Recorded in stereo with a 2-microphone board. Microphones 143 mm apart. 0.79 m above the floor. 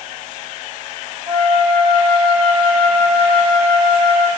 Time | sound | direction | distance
1.3 | a flute | 30° right (ahead or behind) | 0.6 m